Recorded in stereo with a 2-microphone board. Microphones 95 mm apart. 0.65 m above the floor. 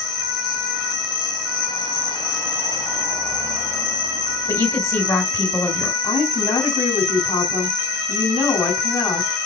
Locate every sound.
0.0 s an insect: 45° left (ahead or behind), 5 m
4.5 s a woman speaking: 30° left (ahead or behind), 4 m
6.0 s a woman speaking: 40° left (ahead or behind), 4.5 m